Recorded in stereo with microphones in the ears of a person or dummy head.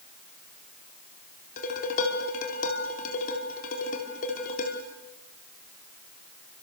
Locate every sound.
1.6 s dishes clattering: 50° left (ahead or behind), 3.5 m